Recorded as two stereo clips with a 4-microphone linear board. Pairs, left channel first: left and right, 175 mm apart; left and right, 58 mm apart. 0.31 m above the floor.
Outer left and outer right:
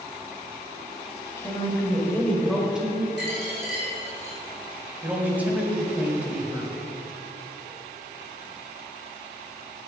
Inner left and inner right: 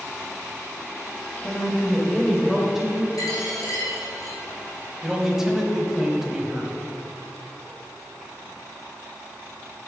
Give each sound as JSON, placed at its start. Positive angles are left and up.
{"t": 1.4, "sound": "a woman speaking", "side_deg": 15, "distance_m": 2.0}
{"t": 3.2, "sound": "a dropped coin", "side_deg": 75, "distance_m": 3.0}
{"t": 5.0, "sound": "a man speaking", "side_deg": -10, "distance_m": 1.5}